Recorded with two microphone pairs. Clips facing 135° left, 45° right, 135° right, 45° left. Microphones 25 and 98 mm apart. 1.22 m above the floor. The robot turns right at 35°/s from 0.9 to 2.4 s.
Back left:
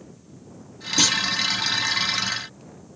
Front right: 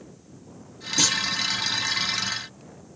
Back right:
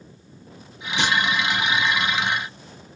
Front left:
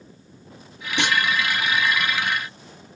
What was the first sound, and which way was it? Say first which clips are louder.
A clunk: back left 3 dB, even; 75° left.